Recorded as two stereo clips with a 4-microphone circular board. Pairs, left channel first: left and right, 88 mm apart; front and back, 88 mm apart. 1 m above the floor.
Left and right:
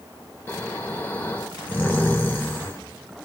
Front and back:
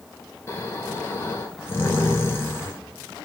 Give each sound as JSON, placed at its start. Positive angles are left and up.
{"t": 0.5, "sound": "snoring", "azimuth_deg": 40, "distance_m": 0.9}